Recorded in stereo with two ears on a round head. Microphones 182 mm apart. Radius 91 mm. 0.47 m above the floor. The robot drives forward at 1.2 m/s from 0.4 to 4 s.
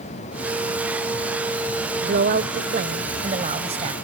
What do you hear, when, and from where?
2.0 s a woman speaking: 55° right (ahead or behind); by 4.0 s 30° right (ahead or behind)